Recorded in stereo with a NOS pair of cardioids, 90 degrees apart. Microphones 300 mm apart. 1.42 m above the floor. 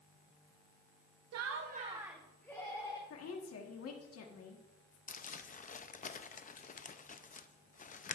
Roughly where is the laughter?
Ahead right.